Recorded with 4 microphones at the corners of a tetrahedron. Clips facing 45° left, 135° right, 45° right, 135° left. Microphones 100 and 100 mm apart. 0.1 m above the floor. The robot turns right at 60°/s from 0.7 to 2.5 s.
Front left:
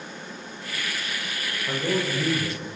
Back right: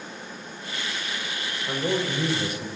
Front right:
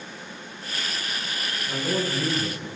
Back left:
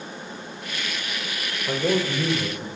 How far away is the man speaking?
About 7.5 m.